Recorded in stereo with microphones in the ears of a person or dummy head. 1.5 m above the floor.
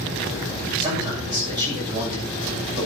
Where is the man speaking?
25° right (ahead or behind), 7.5 m.